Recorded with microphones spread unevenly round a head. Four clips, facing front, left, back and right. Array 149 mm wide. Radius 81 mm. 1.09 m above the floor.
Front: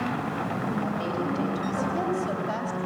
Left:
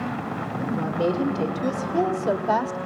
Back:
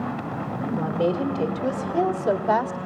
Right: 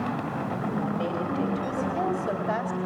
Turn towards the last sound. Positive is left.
turn(degrees=140)